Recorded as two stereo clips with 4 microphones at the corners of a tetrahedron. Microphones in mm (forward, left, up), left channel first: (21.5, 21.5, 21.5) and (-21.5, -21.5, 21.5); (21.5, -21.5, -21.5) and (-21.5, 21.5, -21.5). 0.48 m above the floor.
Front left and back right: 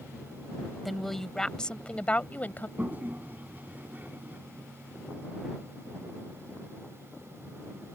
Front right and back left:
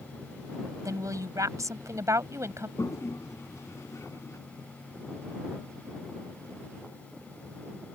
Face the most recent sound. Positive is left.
turn(degrees=-75)